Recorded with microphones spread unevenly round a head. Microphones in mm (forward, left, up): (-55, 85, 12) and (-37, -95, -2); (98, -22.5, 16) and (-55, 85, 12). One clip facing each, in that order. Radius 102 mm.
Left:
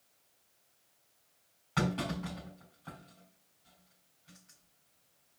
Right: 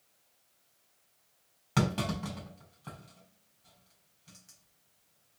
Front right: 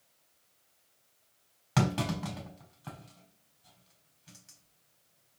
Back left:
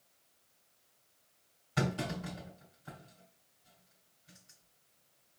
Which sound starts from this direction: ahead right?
A clunk, at 1.8 s.